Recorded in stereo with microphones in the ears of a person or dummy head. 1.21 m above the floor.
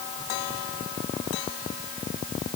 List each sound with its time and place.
Only background noise.